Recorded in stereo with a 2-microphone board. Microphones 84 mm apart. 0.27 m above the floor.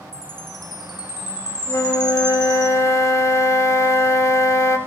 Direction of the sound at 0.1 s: 60° left (ahead or behind).